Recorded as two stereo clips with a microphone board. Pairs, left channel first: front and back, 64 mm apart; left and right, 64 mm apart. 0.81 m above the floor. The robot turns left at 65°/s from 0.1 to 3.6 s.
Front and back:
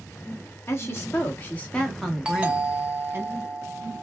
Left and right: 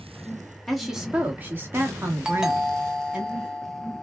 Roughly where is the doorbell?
Behind right.